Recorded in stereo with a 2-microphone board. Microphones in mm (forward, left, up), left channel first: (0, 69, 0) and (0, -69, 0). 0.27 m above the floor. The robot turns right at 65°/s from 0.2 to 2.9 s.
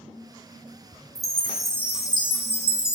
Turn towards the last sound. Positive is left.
turn(degrees=80)